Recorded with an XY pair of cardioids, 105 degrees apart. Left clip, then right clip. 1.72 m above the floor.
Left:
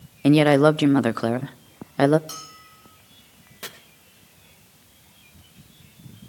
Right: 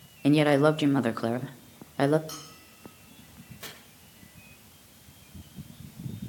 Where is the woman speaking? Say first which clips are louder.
Left 5 dB; 35° left, 0.5 m.